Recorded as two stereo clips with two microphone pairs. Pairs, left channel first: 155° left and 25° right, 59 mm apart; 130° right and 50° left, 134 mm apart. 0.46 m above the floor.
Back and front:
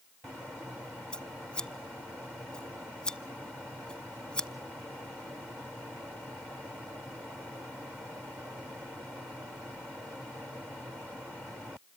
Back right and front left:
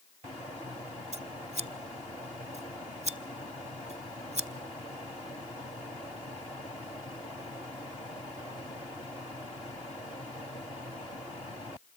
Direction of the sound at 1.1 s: 80° left.